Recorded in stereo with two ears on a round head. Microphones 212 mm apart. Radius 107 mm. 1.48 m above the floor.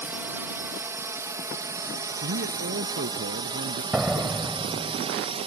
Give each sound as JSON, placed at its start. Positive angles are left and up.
{"t": 0.0, "sound": "a drone", "side_deg": -10}
{"t": 2.2, "sound": "a man speaking", "side_deg": -50}
{"t": 3.9, "sound": "a door slam", "side_deg": -5}